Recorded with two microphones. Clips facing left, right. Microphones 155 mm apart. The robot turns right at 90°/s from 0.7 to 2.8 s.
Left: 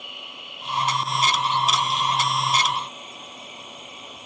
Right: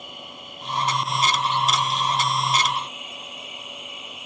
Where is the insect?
45° right; by 4.3 s 145° left.